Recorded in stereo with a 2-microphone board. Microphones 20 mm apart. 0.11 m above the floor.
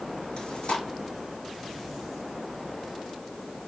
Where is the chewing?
65° left (ahead or behind), 6.5 m.